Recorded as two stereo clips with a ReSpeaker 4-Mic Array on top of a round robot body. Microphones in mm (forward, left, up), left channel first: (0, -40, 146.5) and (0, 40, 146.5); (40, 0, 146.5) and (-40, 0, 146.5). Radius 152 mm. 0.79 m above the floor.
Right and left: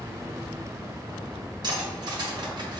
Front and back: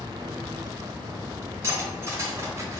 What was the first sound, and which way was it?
Cutlery clinking, 120° left.